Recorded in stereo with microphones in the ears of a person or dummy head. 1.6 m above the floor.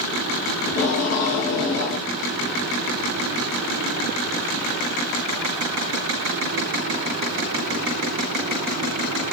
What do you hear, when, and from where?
0.7 s tape being pulled: 60° left (ahead or behind), 1.0 m